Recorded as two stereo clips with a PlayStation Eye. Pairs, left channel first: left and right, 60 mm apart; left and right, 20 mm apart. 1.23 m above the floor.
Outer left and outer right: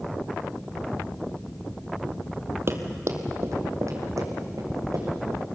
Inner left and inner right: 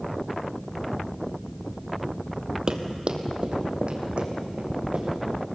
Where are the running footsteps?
45° right (ahead or behind), 1.8 m; by 5.4 s 70° right (ahead or behind), 5 m.